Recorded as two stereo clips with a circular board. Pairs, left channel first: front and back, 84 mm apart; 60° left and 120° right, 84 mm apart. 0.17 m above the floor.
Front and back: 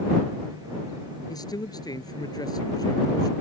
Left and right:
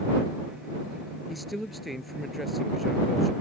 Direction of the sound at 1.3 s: 30° right.